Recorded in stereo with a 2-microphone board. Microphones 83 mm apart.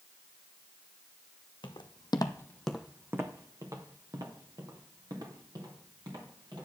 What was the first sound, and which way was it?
Footsteps, 75° left (ahead or behind).